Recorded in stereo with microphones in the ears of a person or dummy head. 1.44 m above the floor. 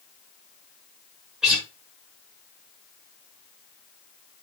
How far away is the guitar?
About 3.5 m.